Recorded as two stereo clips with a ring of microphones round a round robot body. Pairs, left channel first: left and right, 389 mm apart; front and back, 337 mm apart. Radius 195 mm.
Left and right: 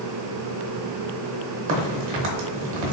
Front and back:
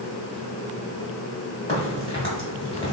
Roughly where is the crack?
Right.